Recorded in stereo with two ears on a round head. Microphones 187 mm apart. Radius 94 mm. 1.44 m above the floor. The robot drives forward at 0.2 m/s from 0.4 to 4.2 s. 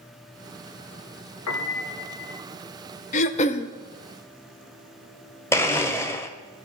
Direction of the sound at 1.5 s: 85° left.